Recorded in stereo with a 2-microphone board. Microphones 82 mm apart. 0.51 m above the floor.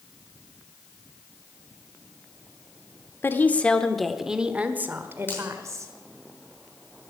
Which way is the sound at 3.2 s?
30° left (ahead or behind).